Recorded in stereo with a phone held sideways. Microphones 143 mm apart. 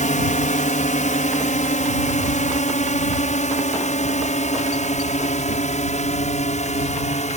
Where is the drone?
60° left (ahead or behind); by 7.4 s 55° left (ahead or behind).